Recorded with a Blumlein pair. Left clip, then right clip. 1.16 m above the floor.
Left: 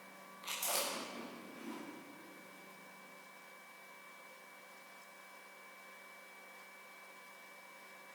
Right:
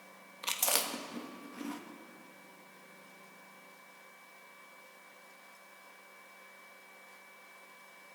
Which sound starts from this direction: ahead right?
Chewing, at 0.4 s.